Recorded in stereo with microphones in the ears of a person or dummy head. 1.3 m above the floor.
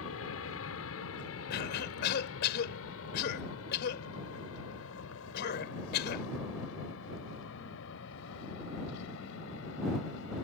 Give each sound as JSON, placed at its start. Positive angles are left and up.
{"t": 0.0, "sound": "an aircraft", "side_deg": 75}
{"t": 1.5, "sound": "a cough", "side_deg": 60}